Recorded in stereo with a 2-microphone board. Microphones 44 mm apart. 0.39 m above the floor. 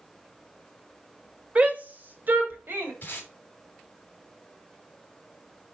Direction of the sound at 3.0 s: 40° left (ahead or behind).